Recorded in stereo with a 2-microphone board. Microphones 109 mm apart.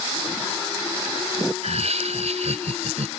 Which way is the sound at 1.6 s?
90° right.